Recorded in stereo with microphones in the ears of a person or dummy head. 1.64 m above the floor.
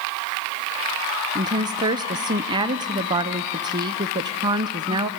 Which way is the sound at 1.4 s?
20° right (ahead or behind).